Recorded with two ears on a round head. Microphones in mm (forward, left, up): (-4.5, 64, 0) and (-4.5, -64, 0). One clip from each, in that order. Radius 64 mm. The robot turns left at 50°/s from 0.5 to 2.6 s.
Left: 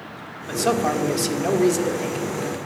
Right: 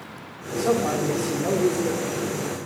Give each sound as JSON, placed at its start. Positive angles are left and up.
{"t": 0.5, "sound": "a man speaking", "azimuth_deg": 120, "distance_m": 2.0}